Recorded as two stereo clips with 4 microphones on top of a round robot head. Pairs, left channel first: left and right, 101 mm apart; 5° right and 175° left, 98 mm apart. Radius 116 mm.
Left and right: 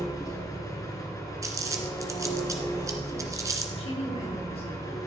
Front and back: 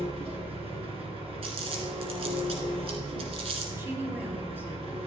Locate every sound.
0.0 s an engine running: 150° left, 2.5 m
1.4 s crumpling: 150° right, 1.5 m
3.8 s a woman speaking: 105° left, 4 m